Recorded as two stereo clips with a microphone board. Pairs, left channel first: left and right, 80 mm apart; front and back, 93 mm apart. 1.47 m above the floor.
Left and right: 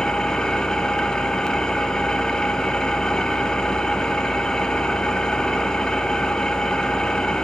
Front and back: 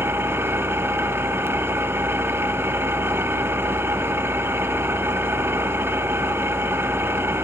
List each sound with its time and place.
0.0 s an engine running: 160° left, 1.0 m